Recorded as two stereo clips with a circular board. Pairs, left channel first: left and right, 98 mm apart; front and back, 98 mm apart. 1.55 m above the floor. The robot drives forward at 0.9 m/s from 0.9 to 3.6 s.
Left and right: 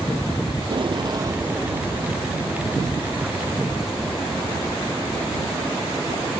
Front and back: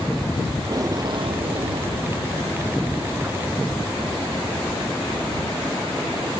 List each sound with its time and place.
0.6 s tape being pulled: 125° right; by 2.0 s 160° right